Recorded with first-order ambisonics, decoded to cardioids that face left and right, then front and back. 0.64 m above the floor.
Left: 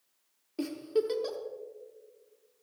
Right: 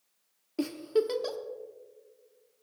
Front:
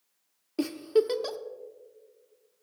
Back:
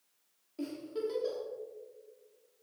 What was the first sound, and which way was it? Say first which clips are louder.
A giggle: right 2 dB, front 12 dB; 20° right.